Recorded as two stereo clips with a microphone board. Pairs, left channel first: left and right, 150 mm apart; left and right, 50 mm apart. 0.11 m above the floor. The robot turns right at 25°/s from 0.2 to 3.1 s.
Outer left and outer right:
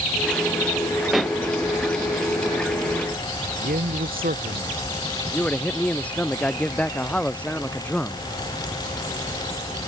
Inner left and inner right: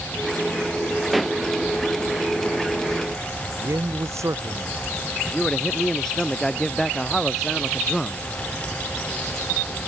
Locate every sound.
1.1 s a pop: centre (ahead or behind); by 1.4 s 5° left (ahead or behind)
3.6 s a man speaking: 75° right (ahead or behind)
5.2 s a man speaking: 10° left (ahead or behind)